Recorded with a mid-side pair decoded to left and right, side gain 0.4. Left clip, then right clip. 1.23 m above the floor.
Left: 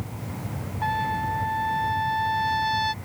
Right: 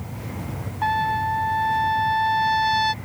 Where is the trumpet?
35° right.